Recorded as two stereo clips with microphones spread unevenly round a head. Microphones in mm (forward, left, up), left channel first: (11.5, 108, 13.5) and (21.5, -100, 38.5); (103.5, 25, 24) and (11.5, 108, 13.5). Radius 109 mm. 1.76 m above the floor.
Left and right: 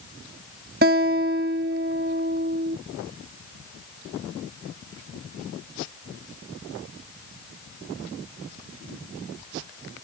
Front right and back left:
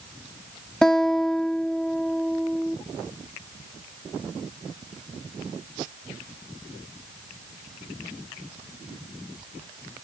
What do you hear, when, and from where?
0.8 s a guitar: 125° right